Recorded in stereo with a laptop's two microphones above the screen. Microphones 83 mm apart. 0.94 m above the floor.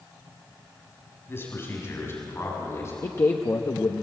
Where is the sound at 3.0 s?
35° left (ahead or behind), 0.7 m.